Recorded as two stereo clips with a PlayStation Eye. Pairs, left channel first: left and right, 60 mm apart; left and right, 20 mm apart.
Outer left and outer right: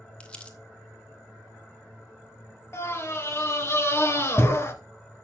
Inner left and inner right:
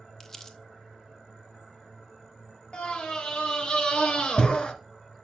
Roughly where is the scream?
Left.